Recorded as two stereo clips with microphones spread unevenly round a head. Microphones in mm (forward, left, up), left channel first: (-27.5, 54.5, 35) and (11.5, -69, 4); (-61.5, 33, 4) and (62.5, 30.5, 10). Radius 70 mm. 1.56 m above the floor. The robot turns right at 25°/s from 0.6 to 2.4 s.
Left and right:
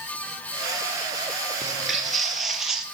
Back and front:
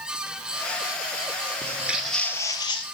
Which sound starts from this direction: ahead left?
Footsteps, at 1.6 s.